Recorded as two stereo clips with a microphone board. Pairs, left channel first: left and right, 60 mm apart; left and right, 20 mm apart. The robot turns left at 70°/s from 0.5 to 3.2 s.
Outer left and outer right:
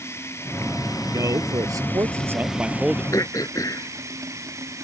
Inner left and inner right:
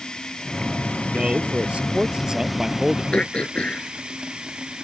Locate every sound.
0.0 s running water: 135° left; by 4.8 s 55° right
1.1 s a man speaking: 50° right; by 3.0 s 170° left
3.1 s throat clearing: 65° left (ahead or behind); by 4.8 s 70° left (ahead or behind)